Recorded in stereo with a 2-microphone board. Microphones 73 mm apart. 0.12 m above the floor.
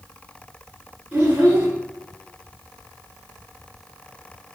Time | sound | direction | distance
1.1 | a child speaking | 20° right (ahead or behind) | 1.3 m